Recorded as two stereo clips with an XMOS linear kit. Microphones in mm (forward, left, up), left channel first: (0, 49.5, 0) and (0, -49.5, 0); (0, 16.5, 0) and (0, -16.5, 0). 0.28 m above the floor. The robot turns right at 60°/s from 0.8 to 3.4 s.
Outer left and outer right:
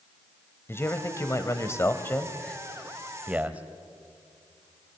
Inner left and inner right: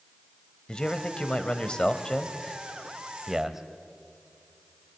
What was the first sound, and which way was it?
A man speaking, 25° left (ahead or behind).